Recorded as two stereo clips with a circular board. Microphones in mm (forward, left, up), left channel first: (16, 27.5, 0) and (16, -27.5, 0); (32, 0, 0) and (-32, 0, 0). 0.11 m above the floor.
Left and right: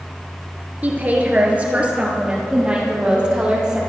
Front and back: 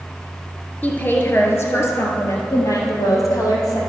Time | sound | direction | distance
0.8 | a woman speaking | 50° right | 1.4 m